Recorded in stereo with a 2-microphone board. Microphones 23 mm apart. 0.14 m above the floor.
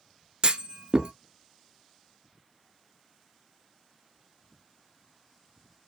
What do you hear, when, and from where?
0.4 s a clunk: 40° right (ahead or behind), 0.5 m